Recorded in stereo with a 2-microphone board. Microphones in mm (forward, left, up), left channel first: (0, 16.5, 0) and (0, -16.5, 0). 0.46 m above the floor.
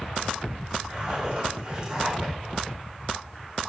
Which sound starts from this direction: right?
A zipper, at 0.9 s.